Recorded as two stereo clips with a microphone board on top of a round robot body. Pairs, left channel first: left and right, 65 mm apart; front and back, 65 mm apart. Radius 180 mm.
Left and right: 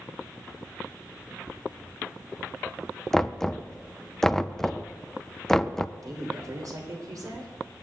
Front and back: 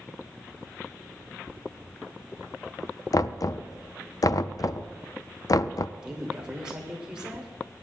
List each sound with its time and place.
3.1 s knocking: 5° left, 0.6 m
6.0 s a woman speaking: 105° right, 3 m